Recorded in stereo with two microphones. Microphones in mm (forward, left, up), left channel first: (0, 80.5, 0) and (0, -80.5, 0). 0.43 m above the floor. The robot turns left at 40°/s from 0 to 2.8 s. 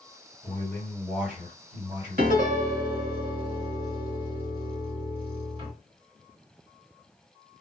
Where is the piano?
60° right (ahead or behind), 0.8 m; by 5.7 s 35° right (ahead or behind), 0.8 m.